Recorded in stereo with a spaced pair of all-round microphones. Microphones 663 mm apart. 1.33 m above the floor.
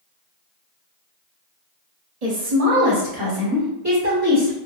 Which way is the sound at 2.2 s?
65° right (ahead or behind).